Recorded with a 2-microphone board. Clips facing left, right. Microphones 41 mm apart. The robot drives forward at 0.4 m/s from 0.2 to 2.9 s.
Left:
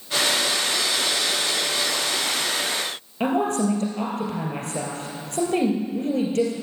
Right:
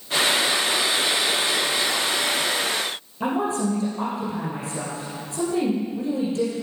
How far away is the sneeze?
I don't hear a sneeze.